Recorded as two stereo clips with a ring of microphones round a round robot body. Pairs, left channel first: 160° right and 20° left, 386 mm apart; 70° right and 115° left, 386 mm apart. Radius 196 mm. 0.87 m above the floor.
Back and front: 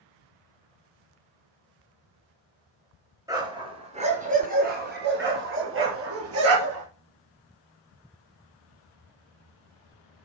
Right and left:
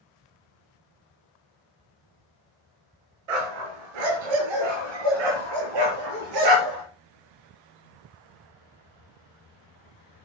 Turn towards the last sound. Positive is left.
turn(degrees=75)